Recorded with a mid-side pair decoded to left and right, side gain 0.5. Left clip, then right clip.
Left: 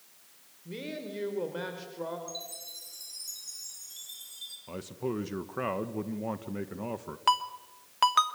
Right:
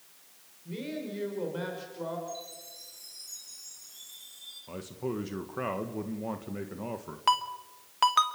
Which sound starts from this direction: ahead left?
A chime, at 2.3 s.